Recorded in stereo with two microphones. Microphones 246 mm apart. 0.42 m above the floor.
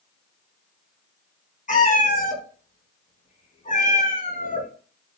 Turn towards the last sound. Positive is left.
turn(degrees=30)  # may be behind; listen again after turning